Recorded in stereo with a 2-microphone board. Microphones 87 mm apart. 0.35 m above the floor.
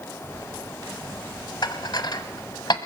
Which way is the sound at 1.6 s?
55° left (ahead or behind).